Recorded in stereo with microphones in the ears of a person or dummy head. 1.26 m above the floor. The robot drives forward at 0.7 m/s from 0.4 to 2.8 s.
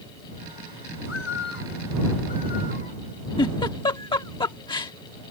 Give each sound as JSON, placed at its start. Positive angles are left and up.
{"t": 1.0, "sound": "a bird", "side_deg": 60}
{"t": 3.4, "sound": "a giggle", "side_deg": 25}